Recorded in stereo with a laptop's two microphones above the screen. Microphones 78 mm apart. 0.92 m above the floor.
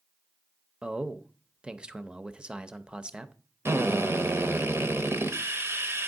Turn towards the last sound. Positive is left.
turn(degrees=-35)  # may be behind; listen again after turning